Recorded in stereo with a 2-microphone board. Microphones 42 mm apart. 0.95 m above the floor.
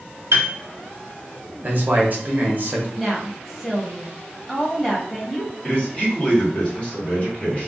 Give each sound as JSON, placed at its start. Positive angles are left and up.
{"t": 0.3, "sound": "a piano", "side_deg": -75, "distance_m": 0.6}
{"t": 1.6, "sound": "a man speaking", "side_deg": -40, "distance_m": 0.8}
{"t": 3.0, "sound": "a woman speaking", "side_deg": 5, "distance_m": 0.9}
{"t": 5.6, "sound": "a man speaking", "side_deg": 30, "distance_m": 1.2}